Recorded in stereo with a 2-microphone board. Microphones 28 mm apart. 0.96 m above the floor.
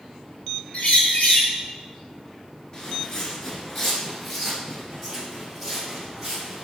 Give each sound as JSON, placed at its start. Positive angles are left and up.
{"t": 0.7, "sound": "a bird", "side_deg": 55, "distance_m": 1.4}
{"t": 2.7, "sound": "footsteps", "side_deg": 25, "distance_m": 1.0}